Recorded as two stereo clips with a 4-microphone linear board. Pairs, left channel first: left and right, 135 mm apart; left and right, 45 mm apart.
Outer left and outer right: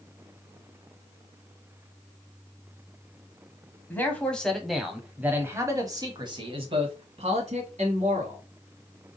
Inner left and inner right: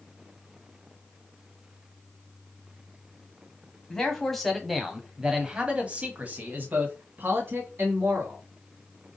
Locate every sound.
3.9 s a man speaking: 15° left (ahead or behind), 1.4 m; by 8.4 s 60° right (ahead or behind), 2 m